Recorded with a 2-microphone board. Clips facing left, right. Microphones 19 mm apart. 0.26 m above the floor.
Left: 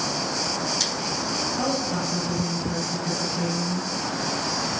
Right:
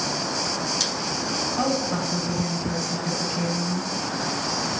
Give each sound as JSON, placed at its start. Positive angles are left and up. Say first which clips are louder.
{"t": 1.6, "sound": "a woman speaking", "louder": "right 1 dB", "side_deg": -30, "distance_m": 1.8}